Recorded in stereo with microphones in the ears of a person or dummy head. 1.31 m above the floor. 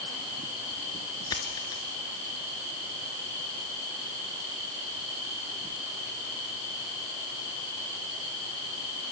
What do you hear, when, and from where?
1.3 s a dropped coin: 20° left (ahead or behind), 1.7 m